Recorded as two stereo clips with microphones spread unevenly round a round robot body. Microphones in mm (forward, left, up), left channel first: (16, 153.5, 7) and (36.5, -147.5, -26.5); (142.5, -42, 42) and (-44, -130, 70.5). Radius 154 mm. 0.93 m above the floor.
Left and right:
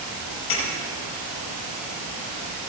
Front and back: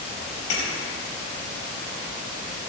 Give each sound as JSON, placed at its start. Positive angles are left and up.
{"t": 0.5, "sound": "breaking glass", "azimuth_deg": 50, "distance_m": 5.0}